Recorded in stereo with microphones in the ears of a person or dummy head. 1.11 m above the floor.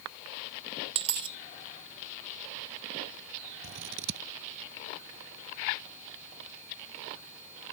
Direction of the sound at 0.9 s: 25° right (ahead or behind).